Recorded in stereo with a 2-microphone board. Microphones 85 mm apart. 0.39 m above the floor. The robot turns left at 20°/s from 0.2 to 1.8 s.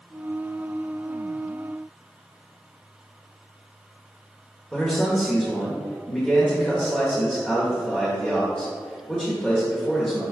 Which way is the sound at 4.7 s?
10° left (ahead or behind).